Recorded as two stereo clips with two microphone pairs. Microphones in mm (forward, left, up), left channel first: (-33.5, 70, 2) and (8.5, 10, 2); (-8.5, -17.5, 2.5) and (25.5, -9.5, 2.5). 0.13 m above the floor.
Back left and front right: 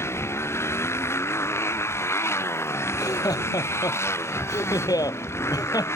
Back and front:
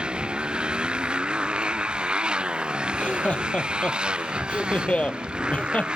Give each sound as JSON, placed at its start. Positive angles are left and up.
{"t": 0.0, "sound": "a motorcycle", "azimuth_deg": 75}
{"t": 2.9, "sound": "laughter", "azimuth_deg": 140}